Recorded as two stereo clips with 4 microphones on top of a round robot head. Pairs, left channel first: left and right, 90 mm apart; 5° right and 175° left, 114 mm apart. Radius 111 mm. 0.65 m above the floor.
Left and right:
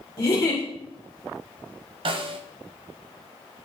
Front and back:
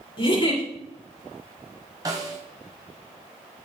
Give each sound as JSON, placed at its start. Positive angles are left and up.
{"t": 0.2, "sound": "a giggle", "azimuth_deg": 35, "distance_m": 3.5}
{"t": 2.0, "sound": "a snare drum", "azimuth_deg": -120, "distance_m": 1.1}